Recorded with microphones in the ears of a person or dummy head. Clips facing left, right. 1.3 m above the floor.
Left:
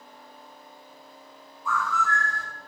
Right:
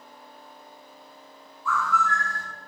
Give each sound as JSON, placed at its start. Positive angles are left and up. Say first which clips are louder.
{"t": 1.6, "sound": "a bird", "louder": "right 1 dB", "side_deg": 20, "distance_m": 1.2}